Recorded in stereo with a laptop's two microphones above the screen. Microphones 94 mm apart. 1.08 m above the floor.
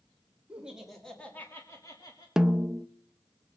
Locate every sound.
0.5 s laughter: 15° right (ahead or behind), 2 m; by 2.3 s 45° left (ahead or behind), 2.5 m
2.4 s a snare drum: 5° right (ahead or behind), 0.5 m